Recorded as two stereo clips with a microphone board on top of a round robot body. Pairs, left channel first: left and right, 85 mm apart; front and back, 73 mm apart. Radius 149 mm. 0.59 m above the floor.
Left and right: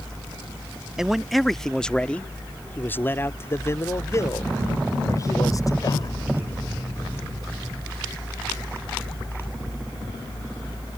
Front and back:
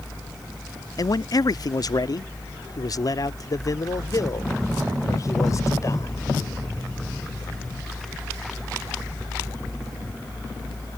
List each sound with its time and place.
1.0 s a man speaking: 5° right; by 6.2 s 45° left